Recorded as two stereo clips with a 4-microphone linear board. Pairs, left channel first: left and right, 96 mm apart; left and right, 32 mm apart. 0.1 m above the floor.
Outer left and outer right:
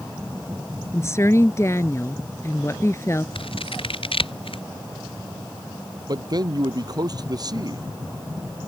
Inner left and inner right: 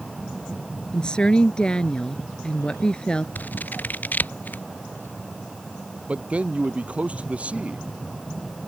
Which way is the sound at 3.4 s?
85° left.